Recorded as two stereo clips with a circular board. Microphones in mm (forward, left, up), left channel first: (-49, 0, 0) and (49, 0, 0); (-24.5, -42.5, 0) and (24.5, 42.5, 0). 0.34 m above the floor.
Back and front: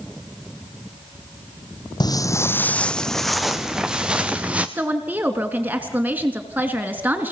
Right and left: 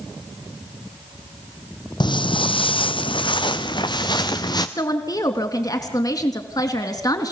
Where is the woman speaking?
70° right, 3 m.